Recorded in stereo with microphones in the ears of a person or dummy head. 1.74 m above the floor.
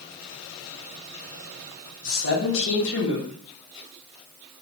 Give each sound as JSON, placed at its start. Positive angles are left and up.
{"t": 2.0, "sound": "a man speaking", "side_deg": 70, "distance_m": 1.5}